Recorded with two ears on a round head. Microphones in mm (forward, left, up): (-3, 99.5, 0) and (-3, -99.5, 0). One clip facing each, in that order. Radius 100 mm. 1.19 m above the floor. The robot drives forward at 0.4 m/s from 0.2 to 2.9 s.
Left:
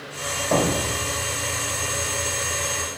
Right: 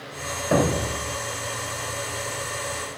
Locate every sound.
0.5 s a thud: 10° right (ahead or behind), 3.5 m; by 1.1 s 15° right (ahead or behind), 3.5 m